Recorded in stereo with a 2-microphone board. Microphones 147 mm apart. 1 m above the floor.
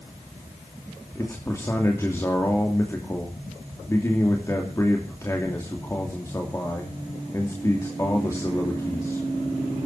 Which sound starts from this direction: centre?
A man speaking, at 1.1 s.